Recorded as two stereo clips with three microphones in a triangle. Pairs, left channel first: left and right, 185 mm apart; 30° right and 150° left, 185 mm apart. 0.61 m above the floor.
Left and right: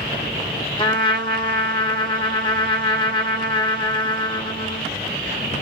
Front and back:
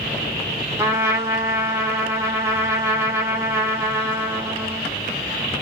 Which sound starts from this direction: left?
A trumpet, at 0.8 s.